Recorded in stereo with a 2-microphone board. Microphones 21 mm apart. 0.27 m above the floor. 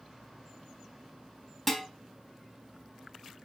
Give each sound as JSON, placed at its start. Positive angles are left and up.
{"t": 1.7, "sound": "dishes clattering", "side_deg": 10, "distance_m": 1.3}